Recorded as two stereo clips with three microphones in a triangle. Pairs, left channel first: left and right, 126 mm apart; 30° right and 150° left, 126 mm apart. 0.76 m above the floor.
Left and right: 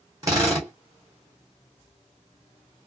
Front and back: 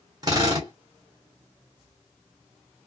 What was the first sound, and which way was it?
A drill, 155° right.